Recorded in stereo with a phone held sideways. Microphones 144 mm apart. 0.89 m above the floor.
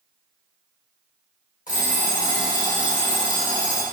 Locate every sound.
1.7 s an alarm clock: 65° left (ahead or behind), 1.0 m